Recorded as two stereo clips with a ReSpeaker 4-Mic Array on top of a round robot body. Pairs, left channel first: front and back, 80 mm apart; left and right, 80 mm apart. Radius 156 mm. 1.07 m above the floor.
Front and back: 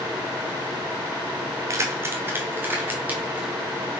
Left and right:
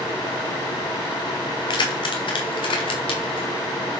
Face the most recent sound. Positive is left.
turn(degrees=105)